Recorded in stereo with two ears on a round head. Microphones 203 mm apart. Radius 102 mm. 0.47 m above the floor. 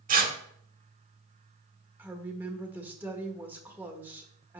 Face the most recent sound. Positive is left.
turn(degrees=-10)  # may be behind; listen again after turning